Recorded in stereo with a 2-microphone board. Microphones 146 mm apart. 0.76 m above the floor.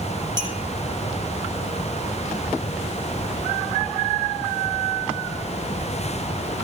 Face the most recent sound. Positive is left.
turn(degrees=-30)  # may be behind; listen again after turning